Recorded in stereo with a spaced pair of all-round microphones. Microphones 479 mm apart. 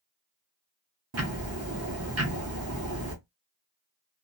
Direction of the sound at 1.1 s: 30° right (ahead or behind).